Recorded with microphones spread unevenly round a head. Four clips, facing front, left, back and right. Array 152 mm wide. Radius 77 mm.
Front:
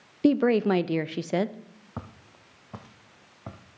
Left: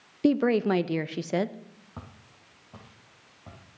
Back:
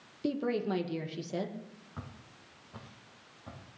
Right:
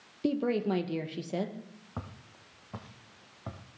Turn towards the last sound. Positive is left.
turn(degrees=-30)